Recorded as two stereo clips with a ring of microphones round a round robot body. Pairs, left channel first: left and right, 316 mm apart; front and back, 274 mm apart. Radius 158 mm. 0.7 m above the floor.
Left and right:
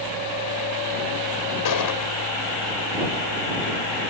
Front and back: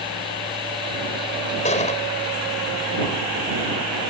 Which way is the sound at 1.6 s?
65° left.